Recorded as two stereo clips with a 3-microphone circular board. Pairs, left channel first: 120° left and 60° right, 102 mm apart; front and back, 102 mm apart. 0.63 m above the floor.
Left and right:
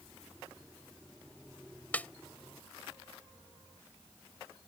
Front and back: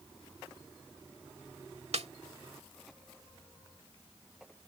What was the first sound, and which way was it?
A snare drum, 165° right.